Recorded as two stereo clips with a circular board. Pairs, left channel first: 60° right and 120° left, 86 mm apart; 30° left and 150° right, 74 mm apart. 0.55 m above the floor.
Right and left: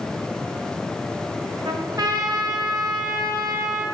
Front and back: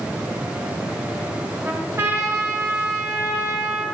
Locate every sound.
1.6 s a trumpet: 160° left, 0.5 m